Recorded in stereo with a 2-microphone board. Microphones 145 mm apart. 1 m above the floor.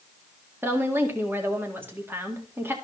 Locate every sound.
0.6 s a woman speaking: 15° right (ahead or behind), 1.8 m